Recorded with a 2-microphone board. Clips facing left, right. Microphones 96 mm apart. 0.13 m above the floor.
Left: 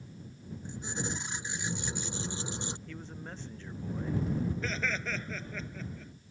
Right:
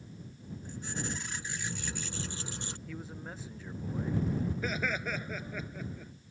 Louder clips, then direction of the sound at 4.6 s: Right 1 dB; 10° right (ahead or behind).